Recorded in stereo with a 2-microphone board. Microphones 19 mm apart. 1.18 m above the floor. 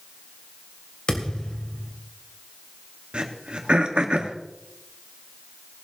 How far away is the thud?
About 2.5 m.